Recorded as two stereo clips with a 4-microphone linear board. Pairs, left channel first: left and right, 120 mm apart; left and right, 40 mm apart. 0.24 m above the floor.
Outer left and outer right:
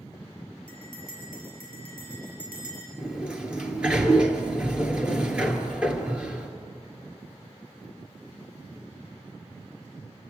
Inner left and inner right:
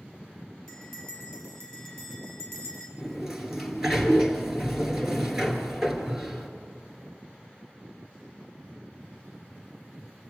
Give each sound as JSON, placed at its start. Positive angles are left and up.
{"t": 0.7, "sound": "a bell", "side_deg": 15, "distance_m": 6.0}
{"t": 3.0, "sound": "a sliding door", "side_deg": -10, "distance_m": 2.0}